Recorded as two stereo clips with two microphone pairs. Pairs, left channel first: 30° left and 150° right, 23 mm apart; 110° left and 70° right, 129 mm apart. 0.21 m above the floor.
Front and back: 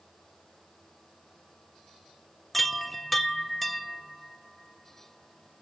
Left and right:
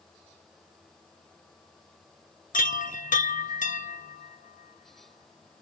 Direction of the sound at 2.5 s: 110° left.